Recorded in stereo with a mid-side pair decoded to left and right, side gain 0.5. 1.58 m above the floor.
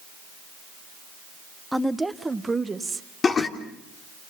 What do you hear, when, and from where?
1.7 s a woman speaking: straight ahead, 1.6 m; by 3.1 s 30° right, 2 m
3.2 s laughter: 40° left, 3.5 m